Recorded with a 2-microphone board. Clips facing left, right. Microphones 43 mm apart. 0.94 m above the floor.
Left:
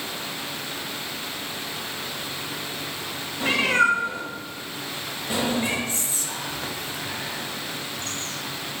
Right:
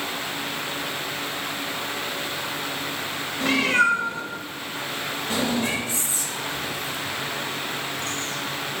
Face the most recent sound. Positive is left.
turn(degrees=45)  # may be behind; listen again after turning